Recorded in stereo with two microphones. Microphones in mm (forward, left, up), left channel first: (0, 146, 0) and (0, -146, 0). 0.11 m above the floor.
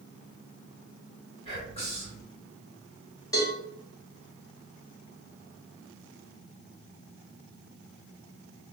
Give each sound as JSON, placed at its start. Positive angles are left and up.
{"t": 1.4, "sound": "whispering", "side_deg": 20, "distance_m": 1.7}
{"t": 3.3, "sound": "a cowbell", "side_deg": 10, "distance_m": 1.0}